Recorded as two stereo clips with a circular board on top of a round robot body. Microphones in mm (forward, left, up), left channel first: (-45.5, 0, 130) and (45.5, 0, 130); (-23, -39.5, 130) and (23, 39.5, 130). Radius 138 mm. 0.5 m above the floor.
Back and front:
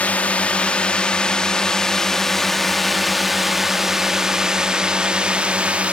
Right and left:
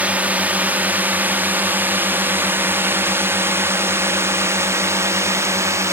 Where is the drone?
120° left; by 5.9 s 65° left.